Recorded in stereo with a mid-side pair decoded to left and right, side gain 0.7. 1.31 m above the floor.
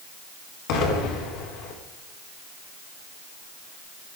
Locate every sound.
0.7 s an explosion: 65° left, 4 m